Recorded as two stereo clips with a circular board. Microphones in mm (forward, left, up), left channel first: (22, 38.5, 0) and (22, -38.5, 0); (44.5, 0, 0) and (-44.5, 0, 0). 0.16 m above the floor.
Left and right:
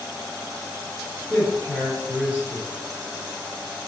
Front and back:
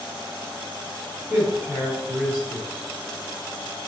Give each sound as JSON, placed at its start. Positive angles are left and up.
{"t": 1.3, "sound": "a man speaking", "azimuth_deg": 105, "distance_m": 1.6}